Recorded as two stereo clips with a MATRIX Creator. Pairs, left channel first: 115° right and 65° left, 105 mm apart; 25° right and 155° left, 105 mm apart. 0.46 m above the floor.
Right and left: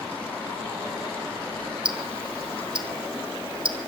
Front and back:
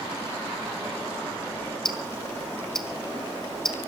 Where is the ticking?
60° left, 1.2 m.